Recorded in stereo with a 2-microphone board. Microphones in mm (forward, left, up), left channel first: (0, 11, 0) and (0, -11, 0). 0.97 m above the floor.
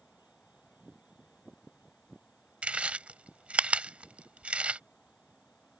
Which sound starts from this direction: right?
Chewing, at 2.6 s.